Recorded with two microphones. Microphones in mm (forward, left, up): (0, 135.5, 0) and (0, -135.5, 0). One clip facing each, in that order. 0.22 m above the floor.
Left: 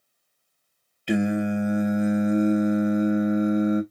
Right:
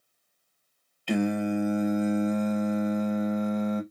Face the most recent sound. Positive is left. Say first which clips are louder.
# left 3 dB
turn(degrees=20)  # may be behind; listen again after turning